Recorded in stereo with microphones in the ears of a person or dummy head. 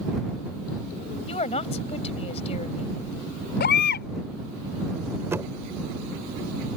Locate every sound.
1.3 s a woman speaking: 35° left (ahead or behind)
3.6 s a baby crying: 40° left (ahead or behind)
5.3 s knocking: 10° right (ahead or behind)